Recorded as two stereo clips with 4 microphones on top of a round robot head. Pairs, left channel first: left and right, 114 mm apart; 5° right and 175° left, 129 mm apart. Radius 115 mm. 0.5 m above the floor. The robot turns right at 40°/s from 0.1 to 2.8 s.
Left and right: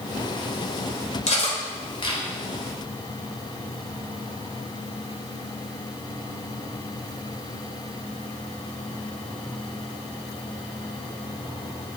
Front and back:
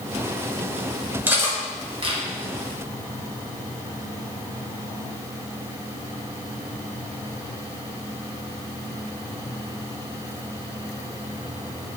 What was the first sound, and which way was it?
Cutlery clinking, 100° left.